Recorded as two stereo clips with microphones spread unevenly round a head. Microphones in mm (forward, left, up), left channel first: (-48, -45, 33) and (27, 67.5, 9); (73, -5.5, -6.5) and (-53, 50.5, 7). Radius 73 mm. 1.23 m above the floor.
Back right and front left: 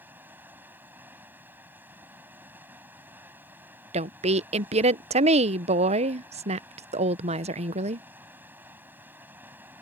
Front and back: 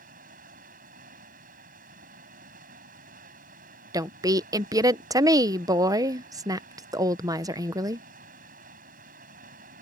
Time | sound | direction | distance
0.0 | running water | 135° left | ?
3.9 | a woman speaking | 90° left | ?